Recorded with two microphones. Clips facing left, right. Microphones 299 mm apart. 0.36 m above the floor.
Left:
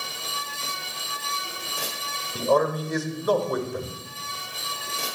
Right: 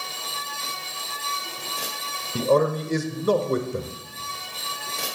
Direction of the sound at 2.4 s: 30° right (ahead or behind).